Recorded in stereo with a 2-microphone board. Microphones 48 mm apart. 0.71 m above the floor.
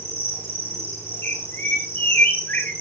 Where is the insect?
45° left (ahead or behind), 8.5 m.